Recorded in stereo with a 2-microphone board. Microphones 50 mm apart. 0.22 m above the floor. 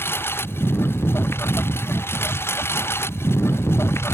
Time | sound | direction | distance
0.0 | a lawn mower | 50° left (ahead or behind) | ?